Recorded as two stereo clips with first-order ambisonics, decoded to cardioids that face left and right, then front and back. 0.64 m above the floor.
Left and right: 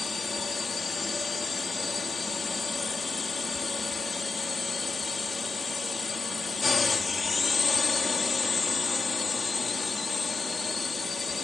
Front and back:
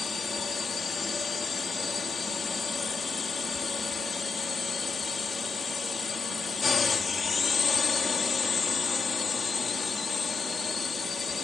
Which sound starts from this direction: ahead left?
A drone, at 0.0 s.